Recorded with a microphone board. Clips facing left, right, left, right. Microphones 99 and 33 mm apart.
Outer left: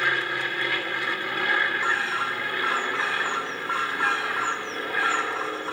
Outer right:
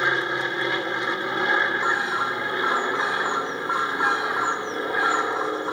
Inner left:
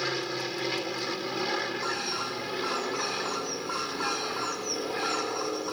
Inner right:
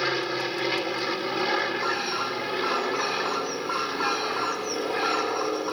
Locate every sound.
0.0 s an aircraft: 20° right (ahead or behind)
1.8 s a bird: 15° right (ahead or behind)